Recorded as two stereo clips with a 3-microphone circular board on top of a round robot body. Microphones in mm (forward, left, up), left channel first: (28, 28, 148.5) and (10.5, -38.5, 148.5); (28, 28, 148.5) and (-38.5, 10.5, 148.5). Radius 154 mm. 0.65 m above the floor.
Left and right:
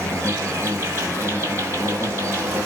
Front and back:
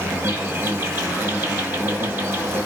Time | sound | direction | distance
0.0 | an insect | 130° right | 1.6 m